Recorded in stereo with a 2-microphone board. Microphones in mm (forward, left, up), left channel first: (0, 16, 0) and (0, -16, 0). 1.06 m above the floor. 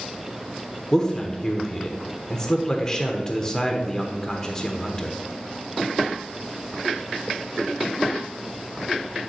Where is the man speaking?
20° left (ahead or behind), 0.8 m.